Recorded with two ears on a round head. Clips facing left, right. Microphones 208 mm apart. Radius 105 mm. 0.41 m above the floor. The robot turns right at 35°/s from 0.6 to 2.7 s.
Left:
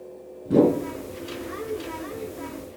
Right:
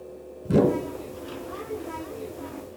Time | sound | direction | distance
0.5 | a whoosh | 65° right (ahead or behind) | 1.5 m